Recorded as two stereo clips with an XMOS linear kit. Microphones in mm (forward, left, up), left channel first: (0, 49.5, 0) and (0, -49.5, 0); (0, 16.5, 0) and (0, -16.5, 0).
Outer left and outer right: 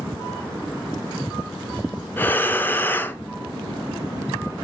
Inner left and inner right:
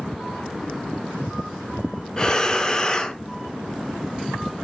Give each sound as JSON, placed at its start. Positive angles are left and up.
{"t": 2.2, "sound": "breathing", "side_deg": 20, "distance_m": 0.9}